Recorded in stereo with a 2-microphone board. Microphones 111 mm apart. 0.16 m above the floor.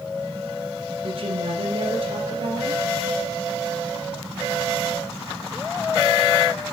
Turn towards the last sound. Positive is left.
turn(degrees=-55)  # may be behind; listen again after turning